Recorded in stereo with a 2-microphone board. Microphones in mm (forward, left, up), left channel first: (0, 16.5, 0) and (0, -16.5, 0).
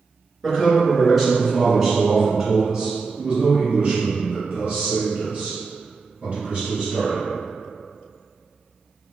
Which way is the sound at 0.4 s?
10° left (ahead or behind).